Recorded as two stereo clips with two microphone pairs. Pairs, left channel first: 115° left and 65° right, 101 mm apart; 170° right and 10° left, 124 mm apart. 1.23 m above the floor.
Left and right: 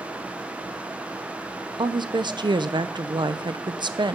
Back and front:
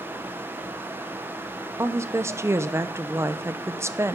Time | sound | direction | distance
1.8 | a woman speaking | 50° right | 0.6 m